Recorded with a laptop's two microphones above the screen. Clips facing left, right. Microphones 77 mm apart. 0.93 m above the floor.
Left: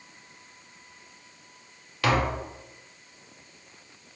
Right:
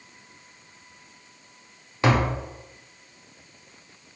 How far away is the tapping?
About 0.7 m.